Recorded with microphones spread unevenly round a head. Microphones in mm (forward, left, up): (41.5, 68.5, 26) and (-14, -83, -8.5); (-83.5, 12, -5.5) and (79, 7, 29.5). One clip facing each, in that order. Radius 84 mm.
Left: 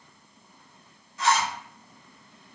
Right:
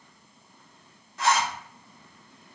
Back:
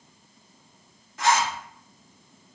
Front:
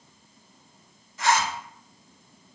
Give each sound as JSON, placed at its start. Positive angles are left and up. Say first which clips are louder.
{"t": 1.2, "sound": "a zipper", "louder": "even, back 1 dB", "azimuth_deg": -145, "distance_m": 1.3}